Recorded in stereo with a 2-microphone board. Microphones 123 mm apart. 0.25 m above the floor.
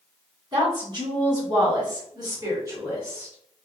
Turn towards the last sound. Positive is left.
turn(degrees=-15)  # may be behind; listen again after turning